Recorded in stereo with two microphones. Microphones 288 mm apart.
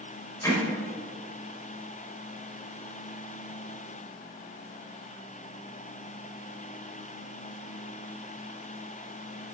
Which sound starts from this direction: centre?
Hammering, at 0.4 s.